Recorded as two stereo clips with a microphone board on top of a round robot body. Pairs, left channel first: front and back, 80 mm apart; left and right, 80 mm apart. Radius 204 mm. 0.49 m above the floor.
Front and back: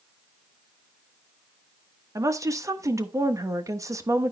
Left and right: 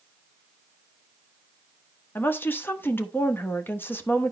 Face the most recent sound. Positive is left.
turn(degrees=150)